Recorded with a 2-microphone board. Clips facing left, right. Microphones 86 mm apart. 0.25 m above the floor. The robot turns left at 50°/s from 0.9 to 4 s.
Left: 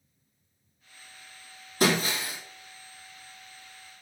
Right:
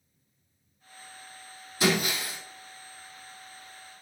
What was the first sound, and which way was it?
Breaking glass, 45° left (ahead or behind).